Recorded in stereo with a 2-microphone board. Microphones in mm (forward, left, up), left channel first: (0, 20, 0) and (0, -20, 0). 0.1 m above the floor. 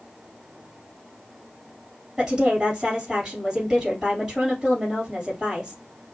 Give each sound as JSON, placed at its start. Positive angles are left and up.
{"t": 2.2, "sound": "a woman speaking", "side_deg": -25, "distance_m": 2.0}